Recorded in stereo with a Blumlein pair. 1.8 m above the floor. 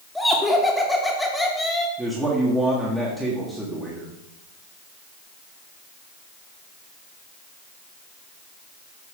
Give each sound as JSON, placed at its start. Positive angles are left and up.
{"t": 0.1, "sound": "laughter", "azimuth_deg": 5, "distance_m": 1.8}
{"t": 2.0, "sound": "a man speaking", "azimuth_deg": -10, "distance_m": 1.8}